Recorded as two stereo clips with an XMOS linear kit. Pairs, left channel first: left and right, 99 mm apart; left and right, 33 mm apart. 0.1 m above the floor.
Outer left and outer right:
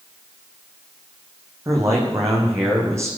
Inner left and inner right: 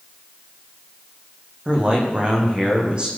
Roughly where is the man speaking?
Right.